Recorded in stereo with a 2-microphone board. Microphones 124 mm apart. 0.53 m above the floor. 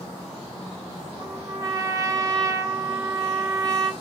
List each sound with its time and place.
1.2 s a trumpet: 30° right (ahead or behind), 1.0 m